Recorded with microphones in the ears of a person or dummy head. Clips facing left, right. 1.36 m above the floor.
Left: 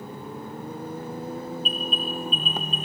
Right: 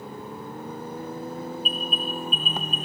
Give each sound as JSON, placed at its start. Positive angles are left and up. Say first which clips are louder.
{"t": 1.6, "sound": "an alarm", "louder": "left 1 dB", "side_deg": -10, "distance_m": 2.5}